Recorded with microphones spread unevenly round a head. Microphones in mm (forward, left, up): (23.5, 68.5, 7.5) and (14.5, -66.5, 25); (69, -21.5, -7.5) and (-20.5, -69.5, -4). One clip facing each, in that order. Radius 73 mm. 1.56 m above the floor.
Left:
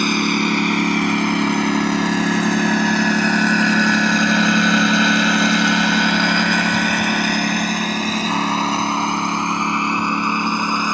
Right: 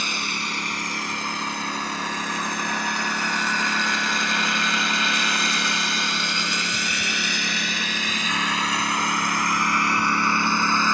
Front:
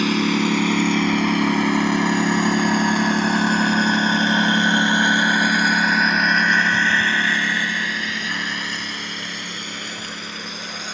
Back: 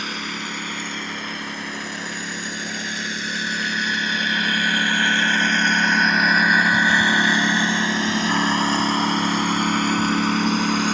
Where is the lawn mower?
50° left; by 10.9 s 165° left.